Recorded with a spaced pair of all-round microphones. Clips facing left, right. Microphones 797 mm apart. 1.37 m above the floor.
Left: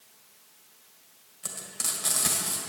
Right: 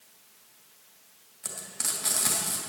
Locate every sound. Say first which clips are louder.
1.4 s frying: even; 70° left (ahead or behind), 2.5 m